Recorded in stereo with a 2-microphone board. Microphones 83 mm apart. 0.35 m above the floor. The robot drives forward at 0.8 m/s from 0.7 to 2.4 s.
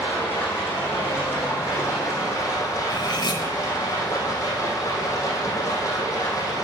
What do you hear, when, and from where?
0.0 s running water: 30° left (ahead or behind), 4.5 m; by 6.7 s 40° left (ahead or behind), 3.5 m
2.9 s cutlery clinking: 65° left (ahead or behind), 1.5 m